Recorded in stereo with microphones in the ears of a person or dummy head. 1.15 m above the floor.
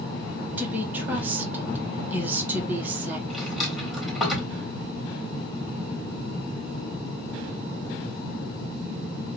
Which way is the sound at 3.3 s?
Centre (ahead or behind).